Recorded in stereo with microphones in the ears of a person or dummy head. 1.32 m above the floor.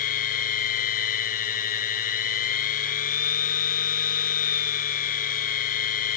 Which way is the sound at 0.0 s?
40° left (ahead or behind).